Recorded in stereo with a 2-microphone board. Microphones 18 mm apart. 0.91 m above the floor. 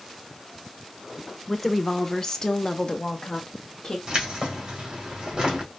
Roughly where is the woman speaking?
Centre.